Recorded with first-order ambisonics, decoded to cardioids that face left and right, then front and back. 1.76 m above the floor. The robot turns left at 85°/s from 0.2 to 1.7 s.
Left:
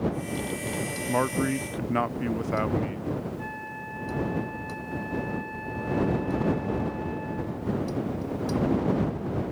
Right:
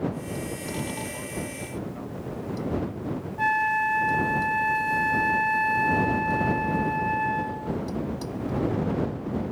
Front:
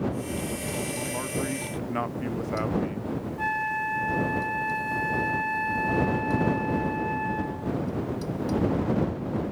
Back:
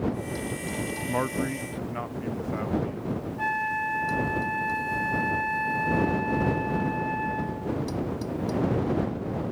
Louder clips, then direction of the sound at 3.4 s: Right 14 dB, even; 90° right.